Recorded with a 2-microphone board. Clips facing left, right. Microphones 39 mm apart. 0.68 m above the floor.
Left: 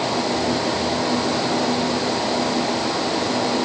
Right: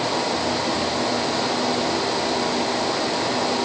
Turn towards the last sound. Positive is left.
No sound to turn to.